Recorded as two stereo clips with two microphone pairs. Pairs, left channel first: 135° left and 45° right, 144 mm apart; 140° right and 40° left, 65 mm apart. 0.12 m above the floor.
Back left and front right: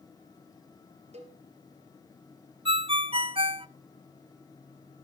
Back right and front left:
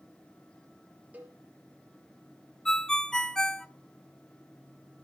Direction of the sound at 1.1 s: 20° right.